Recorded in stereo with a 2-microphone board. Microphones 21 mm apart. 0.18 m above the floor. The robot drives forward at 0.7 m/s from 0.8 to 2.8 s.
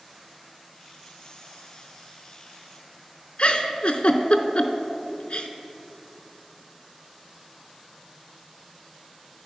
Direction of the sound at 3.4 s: 65° left (ahead or behind).